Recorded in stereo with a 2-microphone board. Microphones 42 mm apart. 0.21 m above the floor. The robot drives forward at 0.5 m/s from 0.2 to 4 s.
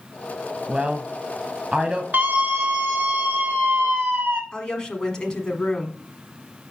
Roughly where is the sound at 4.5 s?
Centre.